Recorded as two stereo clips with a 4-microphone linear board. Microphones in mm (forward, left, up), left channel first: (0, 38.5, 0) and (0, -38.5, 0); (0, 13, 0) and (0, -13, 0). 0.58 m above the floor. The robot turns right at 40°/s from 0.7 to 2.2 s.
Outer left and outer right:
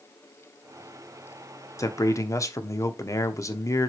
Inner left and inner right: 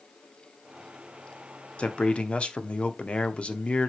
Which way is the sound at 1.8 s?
45° left (ahead or behind).